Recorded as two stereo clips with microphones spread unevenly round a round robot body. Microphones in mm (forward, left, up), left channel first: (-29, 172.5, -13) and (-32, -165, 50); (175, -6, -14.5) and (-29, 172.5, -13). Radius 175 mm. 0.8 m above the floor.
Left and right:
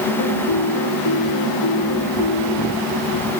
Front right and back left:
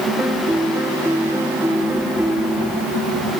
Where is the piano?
55° left.